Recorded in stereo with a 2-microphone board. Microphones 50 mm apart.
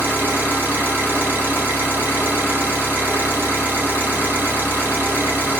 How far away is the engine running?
About 1.9 m.